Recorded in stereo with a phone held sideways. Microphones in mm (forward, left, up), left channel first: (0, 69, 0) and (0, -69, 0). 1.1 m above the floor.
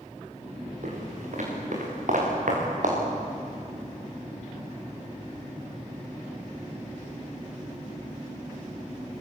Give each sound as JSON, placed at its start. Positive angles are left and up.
{"t": 0.8, "sound": "footsteps", "side_deg": -65, "distance_m": 7.5}